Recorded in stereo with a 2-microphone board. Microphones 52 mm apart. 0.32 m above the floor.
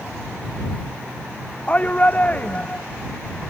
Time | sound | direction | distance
1.7 | a shout | 25° left (ahead or behind) | ?